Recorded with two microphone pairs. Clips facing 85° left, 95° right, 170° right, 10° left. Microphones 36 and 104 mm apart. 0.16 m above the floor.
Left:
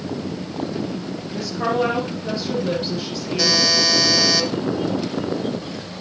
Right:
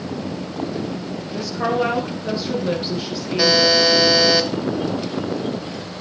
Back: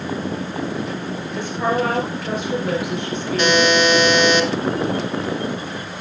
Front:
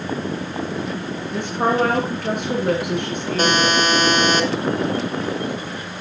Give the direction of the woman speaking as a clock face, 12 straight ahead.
1 o'clock.